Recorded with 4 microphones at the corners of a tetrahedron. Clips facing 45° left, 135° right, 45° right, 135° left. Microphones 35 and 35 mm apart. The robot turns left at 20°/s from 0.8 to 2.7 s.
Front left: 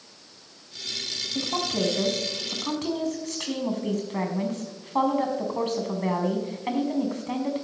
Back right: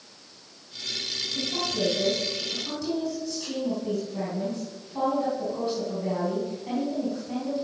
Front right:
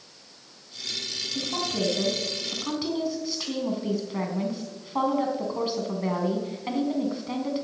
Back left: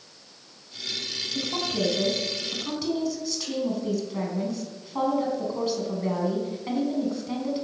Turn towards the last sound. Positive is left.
turn(degrees=25)